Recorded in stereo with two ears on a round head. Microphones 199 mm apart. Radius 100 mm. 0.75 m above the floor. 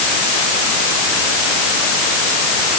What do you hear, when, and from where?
Only background noise.